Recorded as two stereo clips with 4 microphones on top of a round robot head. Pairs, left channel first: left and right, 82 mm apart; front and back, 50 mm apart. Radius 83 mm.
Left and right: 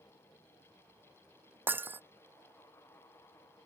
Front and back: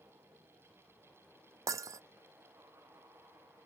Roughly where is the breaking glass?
Behind right.